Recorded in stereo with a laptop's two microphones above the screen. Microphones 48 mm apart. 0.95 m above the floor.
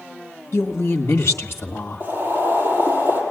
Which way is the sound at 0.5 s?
50° left (ahead or behind).